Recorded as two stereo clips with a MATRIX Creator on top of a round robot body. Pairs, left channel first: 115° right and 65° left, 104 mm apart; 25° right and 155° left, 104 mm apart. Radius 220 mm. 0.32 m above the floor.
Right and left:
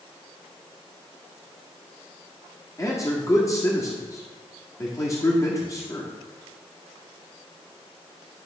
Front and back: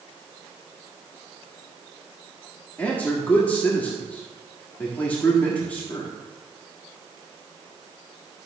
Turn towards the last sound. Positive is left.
turn(degrees=-85)